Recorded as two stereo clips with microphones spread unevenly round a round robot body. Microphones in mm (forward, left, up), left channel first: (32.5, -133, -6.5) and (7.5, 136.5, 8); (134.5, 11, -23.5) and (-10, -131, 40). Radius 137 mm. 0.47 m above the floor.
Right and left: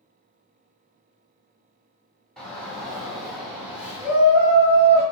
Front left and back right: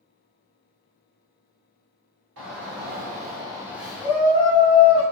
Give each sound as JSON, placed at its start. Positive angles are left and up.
{"t": 2.4, "sound": "a shout", "azimuth_deg": -170, "distance_m": 1.1}